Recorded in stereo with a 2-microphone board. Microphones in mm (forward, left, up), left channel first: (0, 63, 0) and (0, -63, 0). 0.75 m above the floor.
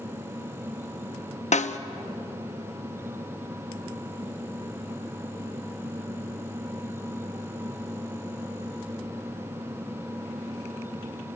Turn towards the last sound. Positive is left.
turn(degrees=80)